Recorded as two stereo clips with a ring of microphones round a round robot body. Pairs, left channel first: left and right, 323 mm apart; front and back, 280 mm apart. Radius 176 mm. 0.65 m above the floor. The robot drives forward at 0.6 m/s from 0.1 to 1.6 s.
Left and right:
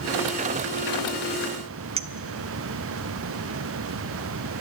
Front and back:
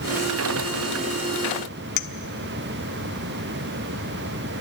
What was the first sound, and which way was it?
A clink, 20° right.